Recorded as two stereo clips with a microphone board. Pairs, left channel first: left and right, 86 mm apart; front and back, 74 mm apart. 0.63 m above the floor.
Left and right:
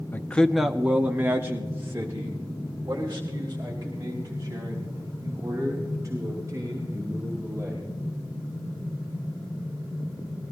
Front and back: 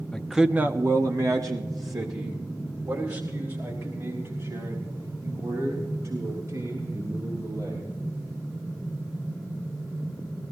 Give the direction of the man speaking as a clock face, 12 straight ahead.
10 o'clock.